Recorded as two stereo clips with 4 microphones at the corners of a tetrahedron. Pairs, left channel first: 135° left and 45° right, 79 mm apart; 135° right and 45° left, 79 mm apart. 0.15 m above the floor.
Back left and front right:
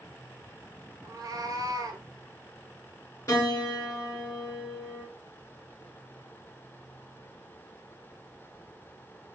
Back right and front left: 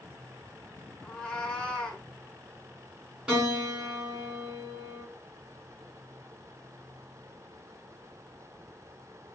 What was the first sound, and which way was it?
A cat meowing, 60° right.